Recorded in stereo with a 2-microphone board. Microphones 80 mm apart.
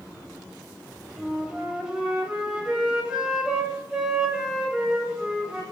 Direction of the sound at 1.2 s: 10° right (ahead or behind).